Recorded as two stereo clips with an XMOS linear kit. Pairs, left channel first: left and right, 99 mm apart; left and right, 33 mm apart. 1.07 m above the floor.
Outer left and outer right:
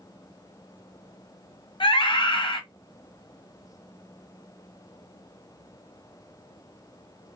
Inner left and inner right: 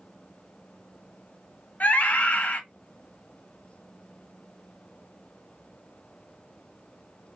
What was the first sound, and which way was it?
A scream, 55° left (ahead or behind).